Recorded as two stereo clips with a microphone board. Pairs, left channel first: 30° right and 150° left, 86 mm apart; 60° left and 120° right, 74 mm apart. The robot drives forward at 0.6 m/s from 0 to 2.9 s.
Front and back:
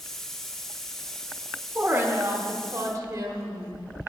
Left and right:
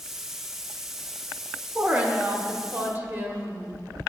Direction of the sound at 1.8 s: 170° right.